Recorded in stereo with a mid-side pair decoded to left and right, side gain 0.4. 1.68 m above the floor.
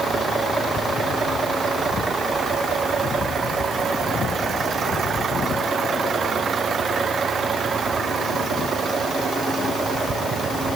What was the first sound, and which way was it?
Only background noise.